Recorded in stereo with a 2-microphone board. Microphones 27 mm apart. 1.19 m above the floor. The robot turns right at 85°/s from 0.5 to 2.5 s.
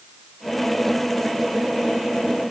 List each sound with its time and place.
Only background noise.